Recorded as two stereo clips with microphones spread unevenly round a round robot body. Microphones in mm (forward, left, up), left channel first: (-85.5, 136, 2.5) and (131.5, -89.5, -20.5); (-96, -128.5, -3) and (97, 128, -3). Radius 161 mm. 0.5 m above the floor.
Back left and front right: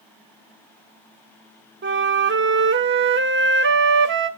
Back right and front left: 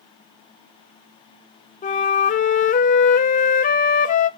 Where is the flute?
75° right, 0.7 m.